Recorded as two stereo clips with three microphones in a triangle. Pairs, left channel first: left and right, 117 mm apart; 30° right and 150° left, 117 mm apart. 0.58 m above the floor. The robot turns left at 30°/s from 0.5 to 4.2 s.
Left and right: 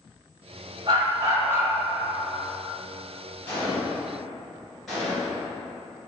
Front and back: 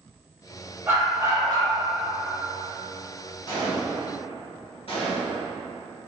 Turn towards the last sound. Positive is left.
turn(degrees=0)